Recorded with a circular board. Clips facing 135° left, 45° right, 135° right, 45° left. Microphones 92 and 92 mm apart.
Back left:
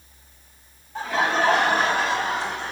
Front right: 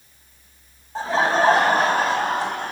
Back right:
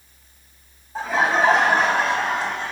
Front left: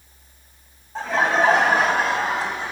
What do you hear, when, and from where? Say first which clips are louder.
0.9 s laughter: front right 3 dB, even; 50° right, 1.7 m; by 2.7 s 35° right, 2.5 m